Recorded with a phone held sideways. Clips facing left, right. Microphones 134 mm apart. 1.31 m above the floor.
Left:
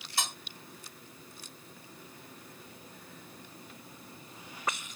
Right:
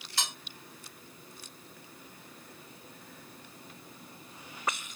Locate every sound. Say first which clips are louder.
0.2 s cutlery clinking: left 2 dB; 55° left (ahead or behind), 2.5 m